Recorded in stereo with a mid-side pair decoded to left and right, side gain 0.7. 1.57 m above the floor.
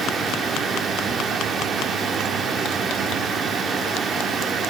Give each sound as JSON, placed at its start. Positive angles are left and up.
{"t": 0.0, "sound": "a fan", "azimuth_deg": -30, "distance_m": 3.0}